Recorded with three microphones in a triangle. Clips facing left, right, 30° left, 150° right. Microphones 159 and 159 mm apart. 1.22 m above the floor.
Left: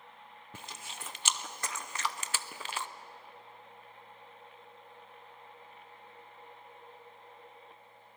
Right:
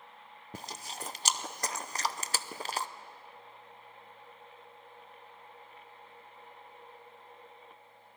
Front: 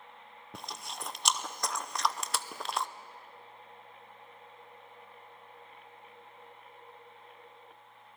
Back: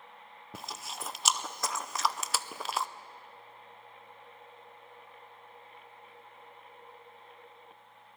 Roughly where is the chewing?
Ahead right.